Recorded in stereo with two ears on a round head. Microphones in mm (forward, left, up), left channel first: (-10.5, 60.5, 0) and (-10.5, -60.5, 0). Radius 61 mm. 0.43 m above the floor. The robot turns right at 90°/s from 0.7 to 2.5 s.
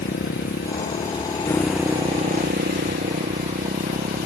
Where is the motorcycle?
90° left; by 4.3 s 105° right.